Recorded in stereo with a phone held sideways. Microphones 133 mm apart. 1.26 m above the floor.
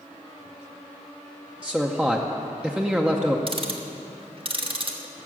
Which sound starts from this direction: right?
Ticking, at 3.5 s.